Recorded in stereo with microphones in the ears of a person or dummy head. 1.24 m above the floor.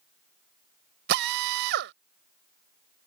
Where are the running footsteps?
No running footsteps in this recording.